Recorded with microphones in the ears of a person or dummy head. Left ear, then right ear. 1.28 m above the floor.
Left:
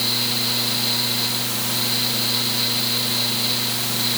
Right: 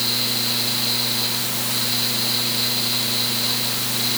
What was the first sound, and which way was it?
A fan, 5° left (ahead or behind).